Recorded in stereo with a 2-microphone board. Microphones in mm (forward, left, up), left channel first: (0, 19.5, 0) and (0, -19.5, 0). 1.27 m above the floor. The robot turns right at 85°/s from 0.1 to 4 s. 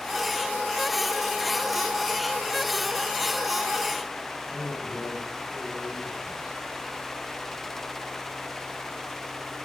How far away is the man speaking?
About 6.5 m.